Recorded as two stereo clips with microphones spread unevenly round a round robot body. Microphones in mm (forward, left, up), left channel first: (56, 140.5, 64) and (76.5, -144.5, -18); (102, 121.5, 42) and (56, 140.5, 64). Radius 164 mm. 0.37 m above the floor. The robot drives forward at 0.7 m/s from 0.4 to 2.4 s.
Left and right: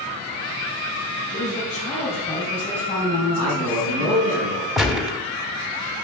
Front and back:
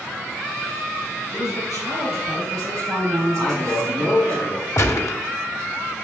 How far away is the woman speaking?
About 3 m.